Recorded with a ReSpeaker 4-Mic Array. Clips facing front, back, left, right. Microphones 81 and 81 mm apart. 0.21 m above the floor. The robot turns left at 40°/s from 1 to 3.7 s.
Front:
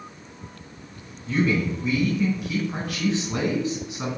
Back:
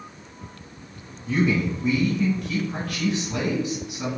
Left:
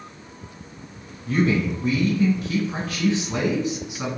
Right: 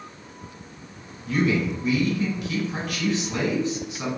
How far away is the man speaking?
About 1.5 m.